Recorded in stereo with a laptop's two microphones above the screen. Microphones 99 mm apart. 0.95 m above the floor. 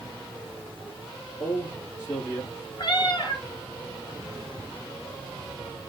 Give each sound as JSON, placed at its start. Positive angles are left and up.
{"t": 1.4, "sound": "a man speaking", "side_deg": 30, "distance_m": 2.0}
{"t": 2.8, "sound": "a cat meowing", "side_deg": 50, "distance_m": 2.0}